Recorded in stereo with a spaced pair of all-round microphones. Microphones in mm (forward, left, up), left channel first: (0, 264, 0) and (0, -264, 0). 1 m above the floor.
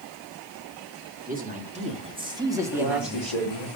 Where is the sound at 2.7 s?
60° left (ahead or behind), 2.5 m.